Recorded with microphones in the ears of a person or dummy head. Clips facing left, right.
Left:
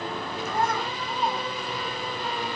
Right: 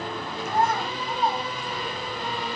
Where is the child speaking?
80° left, 8.5 m.